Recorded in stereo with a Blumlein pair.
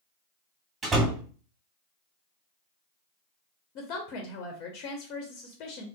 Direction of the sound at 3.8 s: 40° left.